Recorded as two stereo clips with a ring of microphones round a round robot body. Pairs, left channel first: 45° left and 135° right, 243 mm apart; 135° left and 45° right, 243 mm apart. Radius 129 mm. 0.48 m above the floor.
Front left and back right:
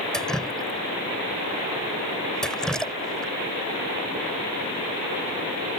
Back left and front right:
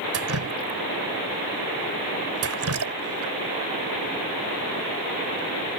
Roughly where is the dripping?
Ahead right.